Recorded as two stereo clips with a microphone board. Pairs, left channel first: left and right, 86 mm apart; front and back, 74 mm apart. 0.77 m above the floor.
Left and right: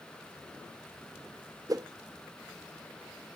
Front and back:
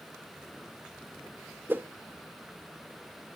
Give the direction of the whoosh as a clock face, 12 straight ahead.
4 o'clock.